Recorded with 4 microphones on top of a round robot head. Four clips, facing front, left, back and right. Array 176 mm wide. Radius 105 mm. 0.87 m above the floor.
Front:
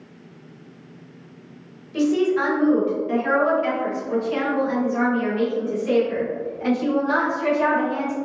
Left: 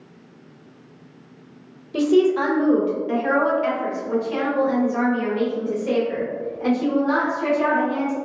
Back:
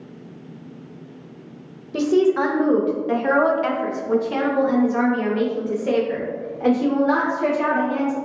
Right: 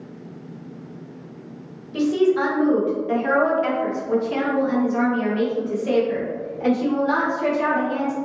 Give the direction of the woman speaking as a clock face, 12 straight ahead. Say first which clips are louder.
Left 2 dB, back 2 dB; 7 o'clock.